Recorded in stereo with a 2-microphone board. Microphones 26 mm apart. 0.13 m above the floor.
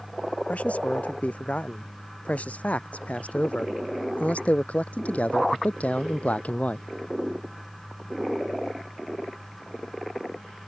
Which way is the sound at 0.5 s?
65° left (ahead or behind).